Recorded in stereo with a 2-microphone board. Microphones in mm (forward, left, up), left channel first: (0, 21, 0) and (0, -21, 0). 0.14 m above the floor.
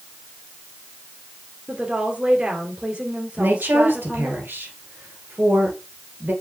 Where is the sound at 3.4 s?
55° right (ahead or behind), 2.5 m.